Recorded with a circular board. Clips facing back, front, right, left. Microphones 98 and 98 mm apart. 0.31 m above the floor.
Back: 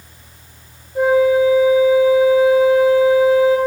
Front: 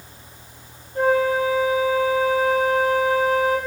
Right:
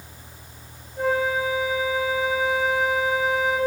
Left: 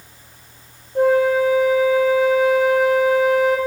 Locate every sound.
0.9 s a flute: 105° left, 7 m